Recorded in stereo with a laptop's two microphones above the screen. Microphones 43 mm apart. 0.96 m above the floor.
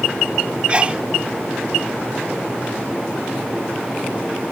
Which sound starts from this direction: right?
A sneeze, at 0.7 s.